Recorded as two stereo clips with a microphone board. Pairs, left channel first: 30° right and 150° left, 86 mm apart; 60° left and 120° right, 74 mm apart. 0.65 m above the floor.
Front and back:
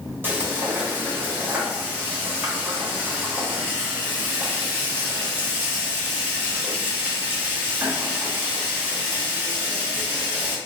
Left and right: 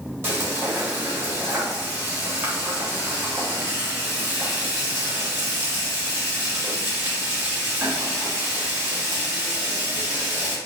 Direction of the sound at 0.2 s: 160° right.